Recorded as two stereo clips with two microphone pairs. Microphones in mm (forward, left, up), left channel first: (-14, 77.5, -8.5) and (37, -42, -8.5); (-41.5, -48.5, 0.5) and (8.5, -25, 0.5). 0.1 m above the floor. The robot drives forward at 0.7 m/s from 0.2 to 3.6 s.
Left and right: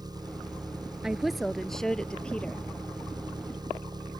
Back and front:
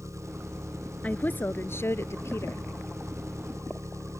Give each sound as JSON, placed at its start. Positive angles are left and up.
{"t": 0.0, "sound": "an engine running", "azimuth_deg": -5}
{"t": 1.0, "sound": "a woman speaking", "azimuth_deg": -150}